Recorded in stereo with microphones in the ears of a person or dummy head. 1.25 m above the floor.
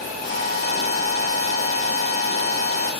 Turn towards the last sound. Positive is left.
turn(degrees=45)  # may be behind; listen again after turning